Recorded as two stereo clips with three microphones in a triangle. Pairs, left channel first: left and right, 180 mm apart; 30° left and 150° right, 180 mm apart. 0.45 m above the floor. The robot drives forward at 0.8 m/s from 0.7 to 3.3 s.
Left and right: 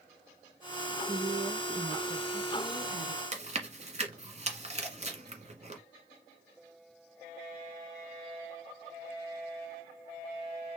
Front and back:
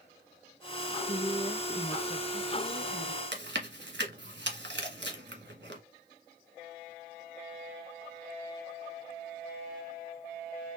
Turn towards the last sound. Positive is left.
turn(degrees=-145)